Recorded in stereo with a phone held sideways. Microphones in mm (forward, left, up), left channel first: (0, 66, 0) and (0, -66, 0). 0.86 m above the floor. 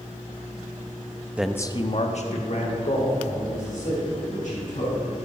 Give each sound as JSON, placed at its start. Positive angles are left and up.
{"t": 1.4, "sound": "a man speaking", "side_deg": -10, "distance_m": 0.5}